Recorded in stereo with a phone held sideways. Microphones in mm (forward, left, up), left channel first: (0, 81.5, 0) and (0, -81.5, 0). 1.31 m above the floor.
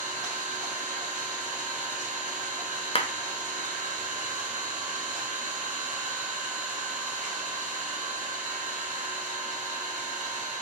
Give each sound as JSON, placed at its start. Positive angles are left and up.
{"t": 0.0, "sound": "an engine running", "side_deg": -50, "distance_m": 1.6}
{"t": 3.0, "sound": "a clap", "side_deg": 40, "distance_m": 0.5}